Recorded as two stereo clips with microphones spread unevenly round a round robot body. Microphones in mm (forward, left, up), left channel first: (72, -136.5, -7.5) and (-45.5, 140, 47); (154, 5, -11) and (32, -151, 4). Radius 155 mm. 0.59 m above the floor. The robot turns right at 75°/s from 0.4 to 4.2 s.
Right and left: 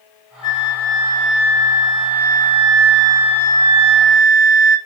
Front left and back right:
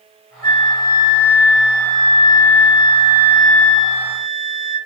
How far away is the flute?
About 1.8 m.